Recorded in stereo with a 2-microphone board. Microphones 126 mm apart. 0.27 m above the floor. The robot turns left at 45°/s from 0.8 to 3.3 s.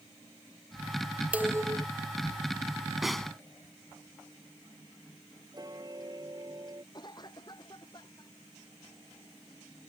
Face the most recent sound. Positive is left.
turn(degrees=35)  # may be behind; listen again after turning